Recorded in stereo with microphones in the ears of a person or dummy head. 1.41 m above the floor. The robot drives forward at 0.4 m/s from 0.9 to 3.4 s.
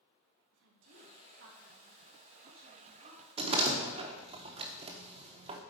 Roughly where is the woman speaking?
Right.